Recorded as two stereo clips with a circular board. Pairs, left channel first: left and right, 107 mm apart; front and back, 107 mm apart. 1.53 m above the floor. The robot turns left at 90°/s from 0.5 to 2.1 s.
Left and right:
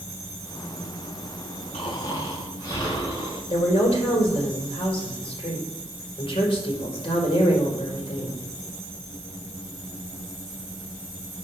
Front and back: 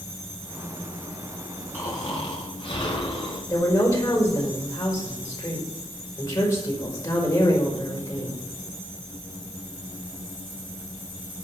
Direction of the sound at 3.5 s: 60° left.